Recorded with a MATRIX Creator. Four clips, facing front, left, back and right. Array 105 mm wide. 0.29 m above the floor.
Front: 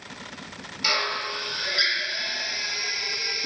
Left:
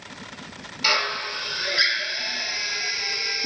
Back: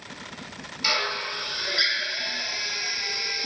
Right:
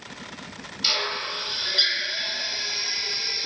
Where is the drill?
90° left, 0.7 m.